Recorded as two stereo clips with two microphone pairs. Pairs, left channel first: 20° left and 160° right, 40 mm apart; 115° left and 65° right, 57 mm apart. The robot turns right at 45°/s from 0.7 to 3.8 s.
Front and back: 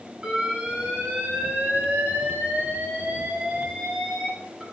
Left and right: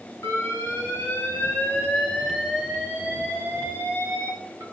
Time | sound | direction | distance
0.2 | an alarm | 130° left | 2.5 m